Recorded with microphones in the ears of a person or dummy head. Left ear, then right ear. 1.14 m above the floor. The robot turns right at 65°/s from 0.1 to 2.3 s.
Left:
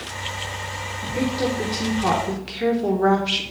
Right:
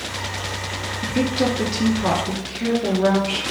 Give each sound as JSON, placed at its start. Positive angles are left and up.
{"t": 1.0, "sound": "a woman speaking", "azimuth_deg": -60, "distance_m": 1.0}